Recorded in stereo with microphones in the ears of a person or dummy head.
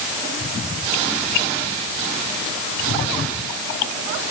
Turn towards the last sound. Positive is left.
No sound to turn to.